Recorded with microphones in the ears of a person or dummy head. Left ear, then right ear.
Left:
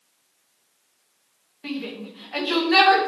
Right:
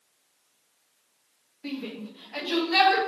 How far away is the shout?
About 2.5 m.